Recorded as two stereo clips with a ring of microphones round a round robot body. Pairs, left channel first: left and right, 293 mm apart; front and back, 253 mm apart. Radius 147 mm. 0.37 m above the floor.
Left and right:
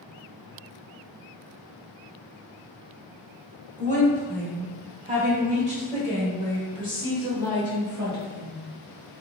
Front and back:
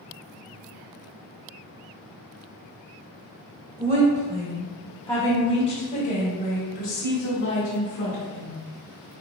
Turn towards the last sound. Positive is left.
turn(degrees=-15)